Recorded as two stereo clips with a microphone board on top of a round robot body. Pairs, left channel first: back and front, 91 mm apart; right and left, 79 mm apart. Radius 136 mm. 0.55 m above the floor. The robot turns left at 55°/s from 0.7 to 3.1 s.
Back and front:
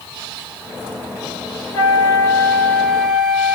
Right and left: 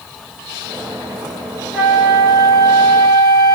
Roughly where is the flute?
Behind.